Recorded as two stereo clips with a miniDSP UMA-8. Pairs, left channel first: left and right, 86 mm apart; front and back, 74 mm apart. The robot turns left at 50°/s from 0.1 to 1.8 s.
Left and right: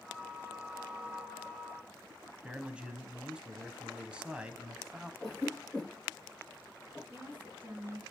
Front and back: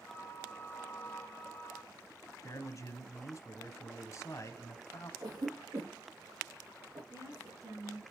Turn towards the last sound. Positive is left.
turn(degrees=-155)